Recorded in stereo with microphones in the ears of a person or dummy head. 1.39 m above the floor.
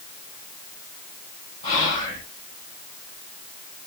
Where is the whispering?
25° left (ahead or behind), 1.5 m.